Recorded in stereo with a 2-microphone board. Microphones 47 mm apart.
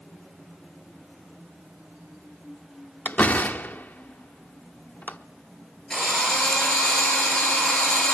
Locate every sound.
3.0 s a door slam: 40° left (ahead or behind), 0.8 m
5.9 s a drill: 15° left (ahead or behind), 9.5 m